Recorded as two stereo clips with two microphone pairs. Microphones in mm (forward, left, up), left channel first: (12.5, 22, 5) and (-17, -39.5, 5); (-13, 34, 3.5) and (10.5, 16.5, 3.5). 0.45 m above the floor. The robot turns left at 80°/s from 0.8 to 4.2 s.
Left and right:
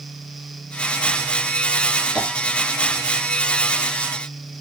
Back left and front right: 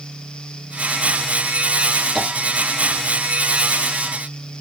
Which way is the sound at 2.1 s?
45° left.